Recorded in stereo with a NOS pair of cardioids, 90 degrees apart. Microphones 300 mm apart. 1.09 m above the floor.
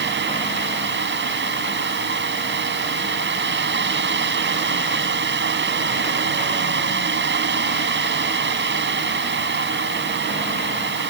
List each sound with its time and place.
0.0 s a fan: 40° right